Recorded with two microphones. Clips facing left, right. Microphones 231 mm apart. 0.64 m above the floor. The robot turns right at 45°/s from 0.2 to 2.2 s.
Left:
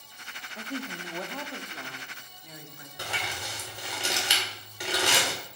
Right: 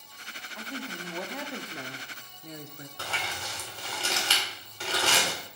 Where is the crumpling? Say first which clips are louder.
Left 2 dB; 15° left (ahead or behind), 2 m.